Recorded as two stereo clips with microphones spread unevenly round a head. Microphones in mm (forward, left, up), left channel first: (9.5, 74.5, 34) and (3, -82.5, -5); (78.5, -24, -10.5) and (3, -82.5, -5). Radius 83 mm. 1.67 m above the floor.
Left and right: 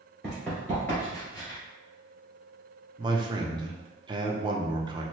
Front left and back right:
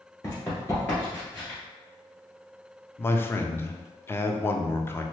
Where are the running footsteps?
50° left, 1.7 m; by 1.6 s 110° left, 2 m.